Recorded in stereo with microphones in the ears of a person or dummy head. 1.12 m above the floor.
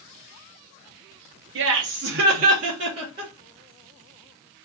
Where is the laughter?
55° right (ahead or behind), 0.7 m; by 3.3 s 20° right (ahead or behind), 1.0 m.